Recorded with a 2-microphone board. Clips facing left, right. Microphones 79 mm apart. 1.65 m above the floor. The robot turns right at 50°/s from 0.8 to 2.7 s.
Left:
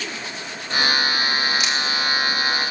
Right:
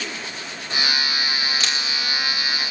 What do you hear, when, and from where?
1.6 s a camera shutter: 15° left (ahead or behind), 2.5 m; by 1.8 s 5° left (ahead or behind), 2.5 m